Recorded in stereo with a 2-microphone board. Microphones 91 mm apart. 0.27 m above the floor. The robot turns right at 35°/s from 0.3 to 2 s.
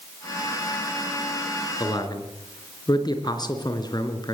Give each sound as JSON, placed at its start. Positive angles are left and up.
{"t": 1.8, "sound": "a man speaking", "side_deg": 55, "distance_m": 3.5}